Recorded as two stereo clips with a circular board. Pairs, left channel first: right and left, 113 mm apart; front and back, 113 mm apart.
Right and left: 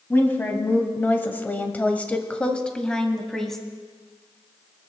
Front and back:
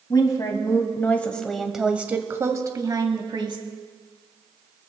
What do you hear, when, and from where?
0.1 s a woman speaking: 25° right, 1.3 m; by 3.6 s 175° right, 1.4 m